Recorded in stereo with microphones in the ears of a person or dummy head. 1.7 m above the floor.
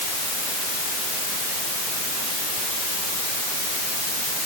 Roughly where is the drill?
No drill in this recording.